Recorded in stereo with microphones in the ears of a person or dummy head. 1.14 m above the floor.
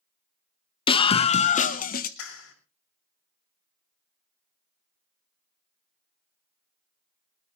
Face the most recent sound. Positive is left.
turn(degrees=75)  # may be behind; listen again after turning